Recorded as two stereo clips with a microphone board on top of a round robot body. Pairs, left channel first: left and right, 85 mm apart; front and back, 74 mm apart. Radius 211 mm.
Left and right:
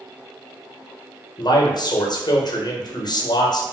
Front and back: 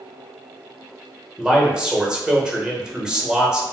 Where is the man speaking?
105° left, 0.9 m.